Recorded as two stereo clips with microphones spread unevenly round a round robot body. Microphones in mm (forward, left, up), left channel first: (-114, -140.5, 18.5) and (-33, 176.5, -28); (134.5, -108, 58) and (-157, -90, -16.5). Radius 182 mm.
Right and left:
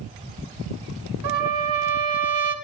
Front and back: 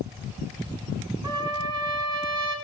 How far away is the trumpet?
About 1.7 m.